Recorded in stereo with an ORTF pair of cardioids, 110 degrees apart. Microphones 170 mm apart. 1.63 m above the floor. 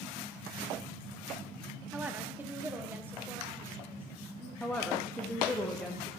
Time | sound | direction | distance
1.9 | a woman speaking | 10° right | 0.8 m
4.6 | a woman speaking | 5° left | 0.7 m